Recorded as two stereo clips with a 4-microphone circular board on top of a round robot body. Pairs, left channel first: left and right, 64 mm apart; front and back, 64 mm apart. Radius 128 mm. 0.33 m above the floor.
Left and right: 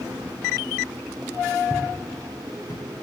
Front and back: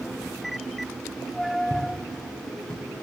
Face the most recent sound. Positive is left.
turn(degrees=75)